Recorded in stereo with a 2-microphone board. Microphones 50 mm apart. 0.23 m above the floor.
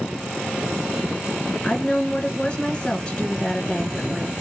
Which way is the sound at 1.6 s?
20° left (ahead or behind).